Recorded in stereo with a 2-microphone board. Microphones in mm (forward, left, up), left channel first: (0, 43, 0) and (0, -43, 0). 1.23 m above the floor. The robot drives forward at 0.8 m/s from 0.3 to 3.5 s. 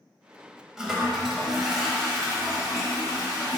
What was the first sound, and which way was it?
A toilet flushing, 5° right (ahead or behind).